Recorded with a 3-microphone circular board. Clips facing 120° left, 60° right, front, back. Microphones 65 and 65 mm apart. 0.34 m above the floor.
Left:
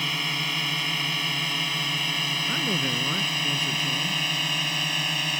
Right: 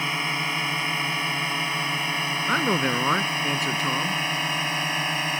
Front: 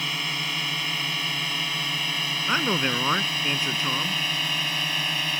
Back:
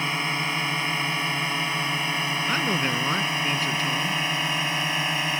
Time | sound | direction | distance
0.0 | a drone | 120° right | ?
2.5 | a man speaking | 65° right | ?